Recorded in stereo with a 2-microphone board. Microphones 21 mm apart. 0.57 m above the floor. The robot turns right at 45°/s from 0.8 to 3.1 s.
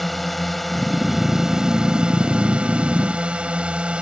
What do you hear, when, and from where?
0.0 s a drone: 175° left; by 4.0 s 85° right